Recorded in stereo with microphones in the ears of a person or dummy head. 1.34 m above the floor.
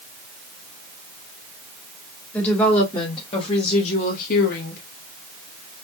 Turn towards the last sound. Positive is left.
turn(degrees=65)  # may be behind; listen again after turning